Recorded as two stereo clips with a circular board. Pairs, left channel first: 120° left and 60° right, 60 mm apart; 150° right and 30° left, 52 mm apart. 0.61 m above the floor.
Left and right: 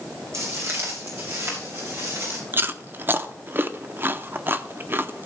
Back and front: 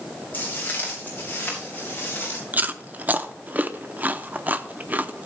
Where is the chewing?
20° right, 0.6 m.